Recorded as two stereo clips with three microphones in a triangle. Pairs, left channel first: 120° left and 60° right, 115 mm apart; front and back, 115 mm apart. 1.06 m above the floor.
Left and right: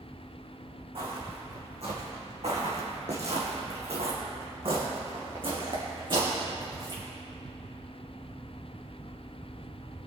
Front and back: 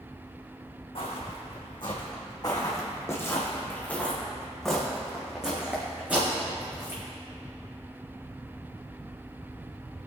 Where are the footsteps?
30° right, 3 m; by 7.0 s 110° right, 4 m.